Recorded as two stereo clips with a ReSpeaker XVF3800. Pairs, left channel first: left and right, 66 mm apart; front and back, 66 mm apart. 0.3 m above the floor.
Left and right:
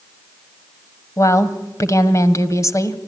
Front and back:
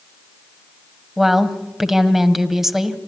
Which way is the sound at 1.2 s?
100° left.